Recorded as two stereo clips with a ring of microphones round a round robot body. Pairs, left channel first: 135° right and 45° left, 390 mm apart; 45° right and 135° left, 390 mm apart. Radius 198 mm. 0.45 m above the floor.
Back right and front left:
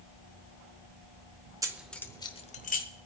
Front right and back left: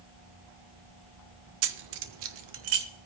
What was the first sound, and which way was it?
Keys jangling, 125° left.